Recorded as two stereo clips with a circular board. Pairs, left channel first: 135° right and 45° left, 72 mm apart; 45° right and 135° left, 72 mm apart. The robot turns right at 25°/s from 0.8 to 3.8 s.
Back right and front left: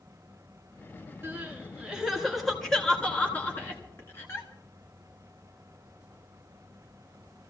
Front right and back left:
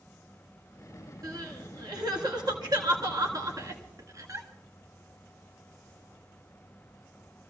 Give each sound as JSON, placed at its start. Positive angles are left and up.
{"t": 1.2, "sound": "crying", "azimuth_deg": 105, "distance_m": 2.0}